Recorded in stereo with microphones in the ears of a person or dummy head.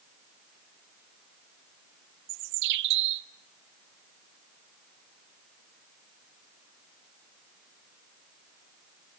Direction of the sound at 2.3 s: 60° right (ahead or behind).